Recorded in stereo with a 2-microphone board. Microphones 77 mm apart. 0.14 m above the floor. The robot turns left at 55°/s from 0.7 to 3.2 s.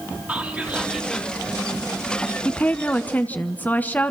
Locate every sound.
0.3 s whispering: 160° right, 4 m; by 1.3 s 165° left, 4 m
2.5 s a woman speaking: 15° left (ahead or behind), 1.1 m; by 4.1 s 20° left (ahead or behind), 1.1 m